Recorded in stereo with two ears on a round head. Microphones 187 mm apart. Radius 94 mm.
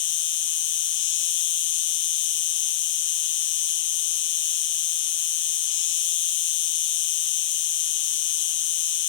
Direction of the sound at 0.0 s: 60° left (ahead or behind).